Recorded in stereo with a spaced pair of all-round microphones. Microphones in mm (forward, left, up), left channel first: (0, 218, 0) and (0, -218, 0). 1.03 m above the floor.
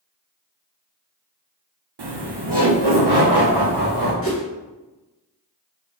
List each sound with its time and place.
2.0 s laughter: 70° right (ahead or behind), 0.7 m; by 4.1 s 65° right (ahead or behind), 1.9 m
4.2 s a whoosh: 30° left (ahead or behind), 1.4 m